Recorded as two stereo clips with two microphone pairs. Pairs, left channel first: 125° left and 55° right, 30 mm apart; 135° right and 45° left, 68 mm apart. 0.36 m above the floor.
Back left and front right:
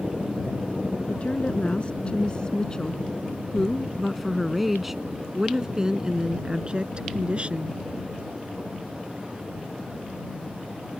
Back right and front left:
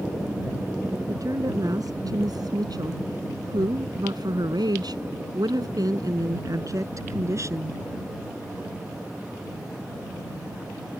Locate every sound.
1.1 s a woman speaking: 80° left; by 7.8 s 5° right